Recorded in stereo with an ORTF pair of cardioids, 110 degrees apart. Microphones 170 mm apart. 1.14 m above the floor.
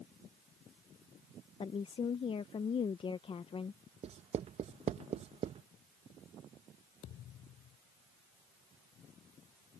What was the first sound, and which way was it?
A woman speaking, 35° left.